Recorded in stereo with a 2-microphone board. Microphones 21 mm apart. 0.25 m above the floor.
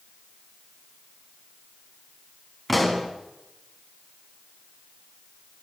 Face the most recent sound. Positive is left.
turn(degrees=0)  # may be behind; listen again after turning